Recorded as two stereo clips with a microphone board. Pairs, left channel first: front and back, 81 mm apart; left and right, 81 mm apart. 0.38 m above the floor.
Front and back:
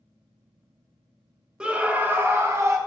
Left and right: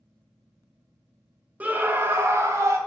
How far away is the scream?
About 1.4 m.